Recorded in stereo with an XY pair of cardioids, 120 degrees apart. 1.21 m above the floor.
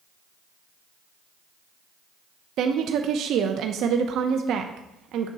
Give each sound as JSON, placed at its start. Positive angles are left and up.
{"t": 2.6, "sound": "a woman speaking", "azimuth_deg": -65, "distance_m": 0.5}